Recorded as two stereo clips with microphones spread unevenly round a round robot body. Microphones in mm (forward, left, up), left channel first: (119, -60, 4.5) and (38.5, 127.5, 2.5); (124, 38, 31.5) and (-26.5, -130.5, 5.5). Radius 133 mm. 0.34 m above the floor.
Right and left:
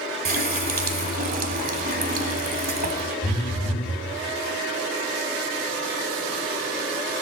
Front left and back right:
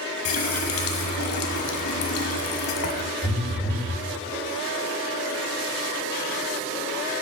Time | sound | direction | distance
0.2 | a running tap | 75° left | 1.3 m
3.2 | a phone buzzing | 30° right | 5 m